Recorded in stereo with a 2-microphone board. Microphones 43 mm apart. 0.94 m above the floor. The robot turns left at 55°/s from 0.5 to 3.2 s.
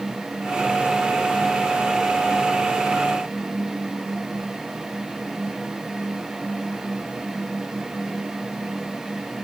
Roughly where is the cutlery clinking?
I don't hear cutlery clinking.